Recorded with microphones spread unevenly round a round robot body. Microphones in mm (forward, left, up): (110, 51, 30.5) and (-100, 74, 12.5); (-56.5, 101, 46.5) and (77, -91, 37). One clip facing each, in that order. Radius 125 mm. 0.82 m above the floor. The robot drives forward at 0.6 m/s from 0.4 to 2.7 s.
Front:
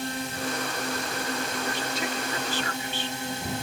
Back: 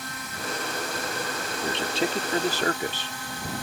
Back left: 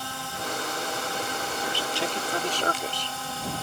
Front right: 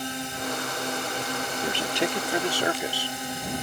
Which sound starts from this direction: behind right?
A man speaking, at 1.6 s.